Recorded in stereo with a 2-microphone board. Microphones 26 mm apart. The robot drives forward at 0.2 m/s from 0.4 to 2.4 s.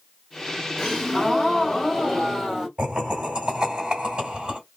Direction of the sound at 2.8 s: 25° right (ahead or behind).